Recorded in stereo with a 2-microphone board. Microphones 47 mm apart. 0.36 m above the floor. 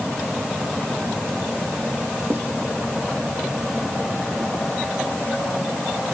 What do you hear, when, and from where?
2.3 s writing: 65° right (ahead or behind), 5 m